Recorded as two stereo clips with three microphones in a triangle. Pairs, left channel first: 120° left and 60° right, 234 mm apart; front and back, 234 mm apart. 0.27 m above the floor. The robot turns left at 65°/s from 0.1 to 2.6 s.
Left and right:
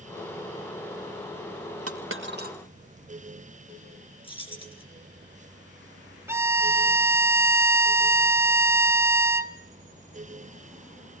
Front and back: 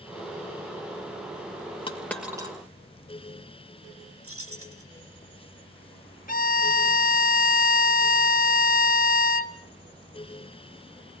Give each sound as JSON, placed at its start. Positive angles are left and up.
{"t": 1.9, "sound": "a dropped coin", "azimuth_deg": -70, "distance_m": 1.6}
{"t": 4.2, "sound": "keys jangling", "azimuth_deg": -175, "distance_m": 3.0}
{"t": 6.3, "sound": "a violin", "azimuth_deg": 15, "distance_m": 0.6}